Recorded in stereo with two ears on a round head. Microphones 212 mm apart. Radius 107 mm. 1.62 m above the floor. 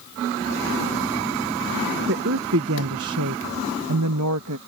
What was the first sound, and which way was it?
A woman speaking, 45° right (ahead or behind).